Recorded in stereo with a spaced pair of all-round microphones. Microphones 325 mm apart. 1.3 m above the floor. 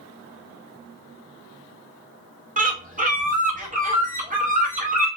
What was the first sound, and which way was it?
A bird, 25° right (ahead or behind).